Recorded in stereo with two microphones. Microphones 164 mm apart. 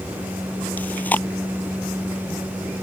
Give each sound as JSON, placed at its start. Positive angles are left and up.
{"t": 0.8, "sound": "chewing", "side_deg": 10}